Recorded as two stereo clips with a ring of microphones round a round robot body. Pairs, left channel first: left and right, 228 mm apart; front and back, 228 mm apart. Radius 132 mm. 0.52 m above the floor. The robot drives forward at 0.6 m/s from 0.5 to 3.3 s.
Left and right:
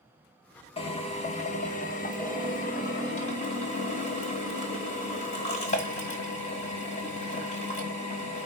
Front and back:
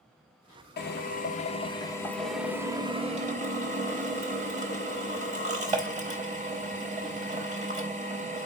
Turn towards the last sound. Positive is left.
turn(degrees=140)